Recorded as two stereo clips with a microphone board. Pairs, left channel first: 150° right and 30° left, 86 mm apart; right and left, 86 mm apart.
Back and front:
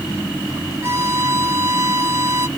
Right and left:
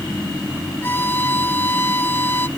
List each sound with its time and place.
0.8 s a violin: 25° right